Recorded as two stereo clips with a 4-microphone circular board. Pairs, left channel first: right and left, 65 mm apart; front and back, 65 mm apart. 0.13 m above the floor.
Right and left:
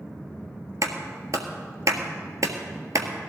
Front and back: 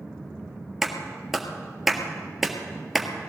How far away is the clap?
About 1.7 m.